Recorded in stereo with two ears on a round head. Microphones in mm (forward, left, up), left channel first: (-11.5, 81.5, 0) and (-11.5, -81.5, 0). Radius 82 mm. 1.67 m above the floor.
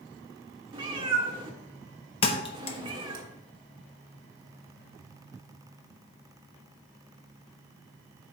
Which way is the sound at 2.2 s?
30° left (ahead or behind).